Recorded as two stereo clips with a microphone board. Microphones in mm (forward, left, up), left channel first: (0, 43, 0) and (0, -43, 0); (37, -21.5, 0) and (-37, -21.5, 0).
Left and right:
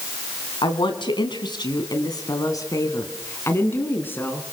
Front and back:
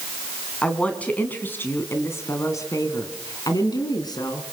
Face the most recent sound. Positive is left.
turn(degrees=20)